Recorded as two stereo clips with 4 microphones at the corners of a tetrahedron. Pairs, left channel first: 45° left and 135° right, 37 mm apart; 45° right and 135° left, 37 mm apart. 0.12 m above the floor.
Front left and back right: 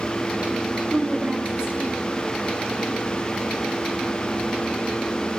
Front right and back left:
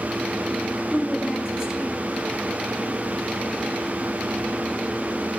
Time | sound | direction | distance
0.9 | a woman speaking | 160° right | 1.6 m